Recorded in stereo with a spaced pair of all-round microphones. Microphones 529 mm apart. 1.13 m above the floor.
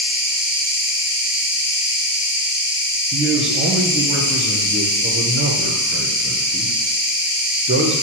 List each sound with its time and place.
0.0 s an insect: 35° left (ahead or behind), 0.7 m
3.1 s a man speaking: 25° right (ahead or behind), 0.6 m